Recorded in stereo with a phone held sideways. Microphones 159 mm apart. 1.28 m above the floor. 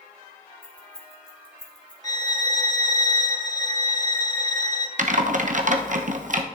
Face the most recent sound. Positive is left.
turn(degrees=-55)  # may be behind; listen again after turning